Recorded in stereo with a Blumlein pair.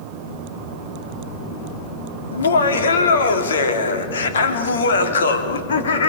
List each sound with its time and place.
2.3 s laughter: 65° left, 2.5 m